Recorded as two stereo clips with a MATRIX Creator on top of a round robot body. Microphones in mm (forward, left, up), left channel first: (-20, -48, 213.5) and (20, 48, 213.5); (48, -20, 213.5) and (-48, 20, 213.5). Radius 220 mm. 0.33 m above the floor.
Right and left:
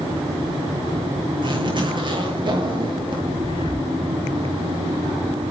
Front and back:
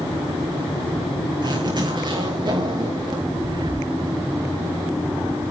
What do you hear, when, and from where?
1.4 s a zipper: 110° left, 8 m
3.4 s breathing: 155° right, 4 m